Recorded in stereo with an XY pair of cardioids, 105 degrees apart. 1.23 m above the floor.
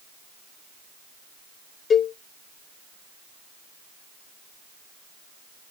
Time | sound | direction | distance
1.9 | a cowbell | 45° left | 0.5 m